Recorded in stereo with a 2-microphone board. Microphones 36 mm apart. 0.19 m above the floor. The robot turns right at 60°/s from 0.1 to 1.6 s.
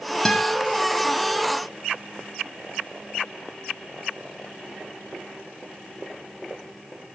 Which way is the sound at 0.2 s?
20° left (ahead or behind).